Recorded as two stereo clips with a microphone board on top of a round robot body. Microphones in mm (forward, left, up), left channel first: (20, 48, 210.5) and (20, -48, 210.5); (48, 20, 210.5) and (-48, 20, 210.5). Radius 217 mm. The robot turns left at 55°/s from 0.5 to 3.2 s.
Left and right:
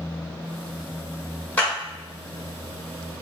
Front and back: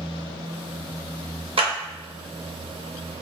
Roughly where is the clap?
Behind.